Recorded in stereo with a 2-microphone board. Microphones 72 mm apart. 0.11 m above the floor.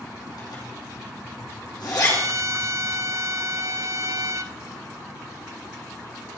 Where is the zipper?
65° left (ahead or behind), 6 m.